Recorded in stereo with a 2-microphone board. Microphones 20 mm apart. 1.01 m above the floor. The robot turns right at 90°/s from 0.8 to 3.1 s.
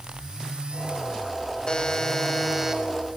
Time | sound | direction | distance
1.7 | a buzzer | 100° left | 1.1 m